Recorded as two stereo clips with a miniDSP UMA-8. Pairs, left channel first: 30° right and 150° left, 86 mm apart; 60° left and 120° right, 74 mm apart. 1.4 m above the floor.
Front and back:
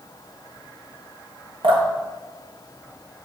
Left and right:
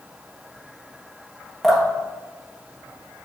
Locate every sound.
1.6 s dripping: 150° left, 1.4 m